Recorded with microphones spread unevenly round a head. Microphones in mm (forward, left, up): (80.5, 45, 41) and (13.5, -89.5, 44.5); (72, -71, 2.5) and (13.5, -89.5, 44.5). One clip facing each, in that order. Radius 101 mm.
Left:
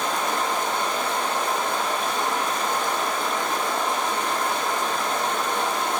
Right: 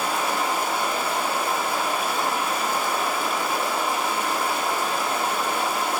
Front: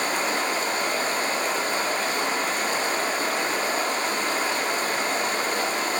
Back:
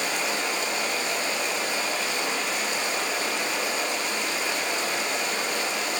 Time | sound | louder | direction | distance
0.0 | running water | even, front 3 dB | 35° right | 1.6 m